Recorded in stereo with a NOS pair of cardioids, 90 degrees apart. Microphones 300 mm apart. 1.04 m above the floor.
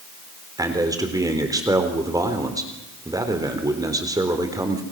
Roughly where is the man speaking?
Ahead.